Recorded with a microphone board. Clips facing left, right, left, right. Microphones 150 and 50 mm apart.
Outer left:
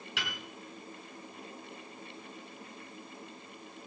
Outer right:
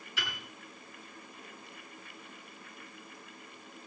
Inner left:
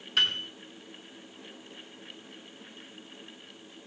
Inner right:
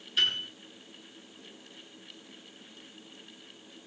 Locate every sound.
0.2 s a piano: 75° left (ahead or behind), 3.5 m